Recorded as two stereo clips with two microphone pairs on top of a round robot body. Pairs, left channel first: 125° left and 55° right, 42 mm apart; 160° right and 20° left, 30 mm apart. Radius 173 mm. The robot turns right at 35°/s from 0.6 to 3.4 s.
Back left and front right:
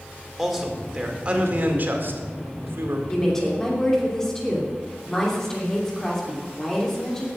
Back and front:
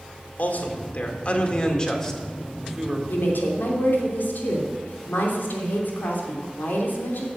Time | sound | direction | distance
0.4 | a man speaking | 140° right | 2 m
3.1 | a woman speaking | 165° right | 3 m